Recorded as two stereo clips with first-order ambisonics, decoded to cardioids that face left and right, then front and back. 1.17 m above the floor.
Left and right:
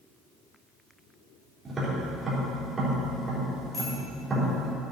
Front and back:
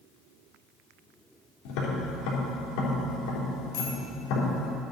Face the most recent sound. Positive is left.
turn(degrees=15)